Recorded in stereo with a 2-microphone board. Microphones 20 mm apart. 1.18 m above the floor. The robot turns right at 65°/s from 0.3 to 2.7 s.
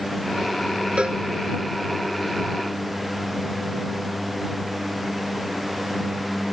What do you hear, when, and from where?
1.0 s a cowbell: 80° right; by 1.2 s 70° right (ahead or behind)